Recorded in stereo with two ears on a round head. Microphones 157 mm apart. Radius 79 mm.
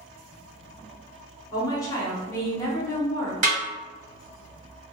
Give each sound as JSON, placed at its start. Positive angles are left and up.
{"t": 1.5, "sound": "a woman speaking", "side_deg": 20, "distance_m": 0.9}
{"t": 3.4, "sound": "a snare drum", "side_deg": -45, "distance_m": 1.6}